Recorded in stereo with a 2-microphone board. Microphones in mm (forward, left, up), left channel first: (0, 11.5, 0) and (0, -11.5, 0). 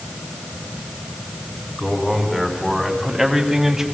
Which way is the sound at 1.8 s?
5° right (ahead or behind).